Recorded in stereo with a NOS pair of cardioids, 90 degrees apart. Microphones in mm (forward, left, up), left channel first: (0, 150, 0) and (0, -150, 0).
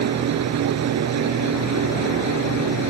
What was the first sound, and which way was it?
A fan, 60° right.